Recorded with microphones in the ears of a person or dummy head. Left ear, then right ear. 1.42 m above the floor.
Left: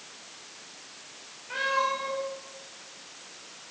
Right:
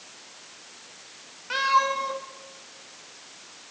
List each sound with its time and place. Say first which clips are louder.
1.5 s a cat meowing: right 5 dB; 55° right (ahead or behind), 1.2 m